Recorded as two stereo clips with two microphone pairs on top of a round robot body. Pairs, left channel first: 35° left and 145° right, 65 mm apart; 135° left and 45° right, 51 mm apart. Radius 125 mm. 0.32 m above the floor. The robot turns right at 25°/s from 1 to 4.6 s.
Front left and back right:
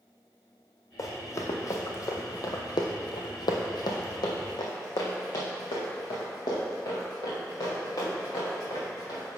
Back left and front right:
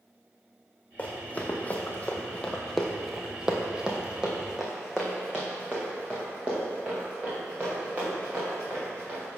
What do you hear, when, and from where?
1.0 s running footsteps: 70° left, 1.2 m; by 9.4 s 15° left, 4 m